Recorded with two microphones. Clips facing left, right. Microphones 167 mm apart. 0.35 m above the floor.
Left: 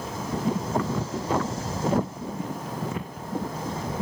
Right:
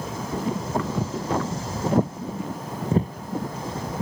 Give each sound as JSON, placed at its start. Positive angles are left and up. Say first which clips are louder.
{"t": 1.0, "sound": "footsteps", "louder": "right 1 dB", "side_deg": -10}